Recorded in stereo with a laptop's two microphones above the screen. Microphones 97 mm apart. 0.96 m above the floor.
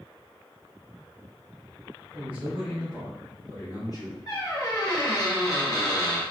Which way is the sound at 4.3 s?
40° left (ahead or behind).